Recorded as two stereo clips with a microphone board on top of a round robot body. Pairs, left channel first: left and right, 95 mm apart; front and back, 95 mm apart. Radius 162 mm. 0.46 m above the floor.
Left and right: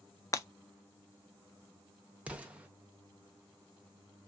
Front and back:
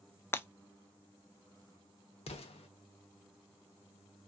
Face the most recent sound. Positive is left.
turn(degrees=-10)